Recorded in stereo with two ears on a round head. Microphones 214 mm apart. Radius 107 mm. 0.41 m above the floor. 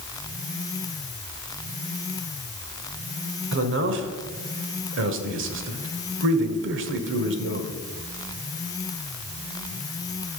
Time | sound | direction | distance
3.5 | a man speaking | 55° right (ahead or behind) | 1.3 m